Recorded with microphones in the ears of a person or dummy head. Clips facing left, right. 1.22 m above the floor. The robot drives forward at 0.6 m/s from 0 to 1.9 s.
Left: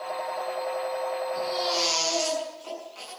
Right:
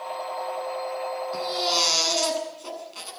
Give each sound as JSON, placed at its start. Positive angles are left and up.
{"t": 1.3, "sound": "a baby crying", "side_deg": -55, "distance_m": 9.0}